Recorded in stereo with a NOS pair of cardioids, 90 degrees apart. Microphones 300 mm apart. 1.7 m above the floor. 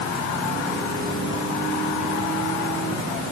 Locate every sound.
Only background noise.